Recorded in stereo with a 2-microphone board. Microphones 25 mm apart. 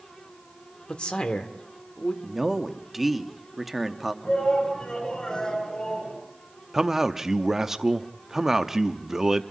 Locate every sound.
0.9 s a man speaking: 45° left (ahead or behind), 1.7 m
2.2 s a man speaking: 10° right (ahead or behind), 1.0 m
4.2 s a shout: 45° left (ahead or behind), 6.5 m
6.7 s a man speaking: 20° right (ahead or behind), 0.7 m